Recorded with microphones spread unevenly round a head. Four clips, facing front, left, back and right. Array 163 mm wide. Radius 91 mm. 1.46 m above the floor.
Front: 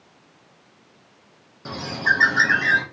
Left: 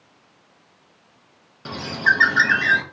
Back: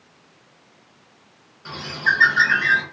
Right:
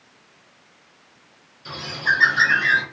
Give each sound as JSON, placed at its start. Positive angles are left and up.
{"t": 1.6, "sound": "a bird", "azimuth_deg": 45, "distance_m": 0.5}